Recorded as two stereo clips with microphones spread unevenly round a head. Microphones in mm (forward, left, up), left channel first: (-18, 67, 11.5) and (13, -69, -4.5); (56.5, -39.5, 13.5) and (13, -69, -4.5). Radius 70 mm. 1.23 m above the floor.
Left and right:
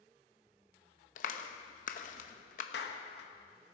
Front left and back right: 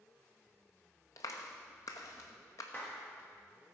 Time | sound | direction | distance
1.2 | a clap | 70° left | 0.9 m
2.7 | a clap | 110° left | 1.4 m